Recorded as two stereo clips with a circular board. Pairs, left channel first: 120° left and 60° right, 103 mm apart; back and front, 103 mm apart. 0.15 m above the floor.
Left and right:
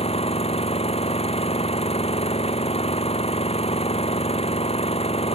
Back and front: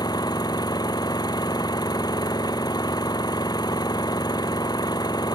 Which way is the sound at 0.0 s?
130° left.